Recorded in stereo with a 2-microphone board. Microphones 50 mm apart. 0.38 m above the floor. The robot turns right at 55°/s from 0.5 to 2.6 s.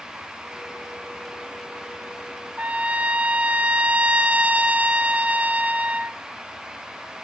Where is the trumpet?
25° right (ahead or behind), 1.2 m; by 6.2 s 30° right (ahead or behind), 1.2 m.